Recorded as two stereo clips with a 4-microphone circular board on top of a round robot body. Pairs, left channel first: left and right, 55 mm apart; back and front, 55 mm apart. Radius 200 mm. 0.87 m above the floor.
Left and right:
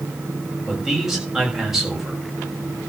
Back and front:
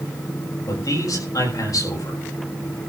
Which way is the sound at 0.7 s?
175° right.